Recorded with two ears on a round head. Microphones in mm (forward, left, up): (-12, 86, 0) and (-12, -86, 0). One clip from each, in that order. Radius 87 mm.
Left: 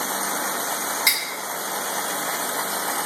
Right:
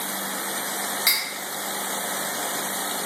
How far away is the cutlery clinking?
About 1.1 m.